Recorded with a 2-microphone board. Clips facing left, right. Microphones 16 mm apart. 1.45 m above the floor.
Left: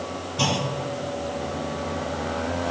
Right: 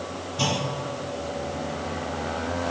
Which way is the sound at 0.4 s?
20° left (ahead or behind).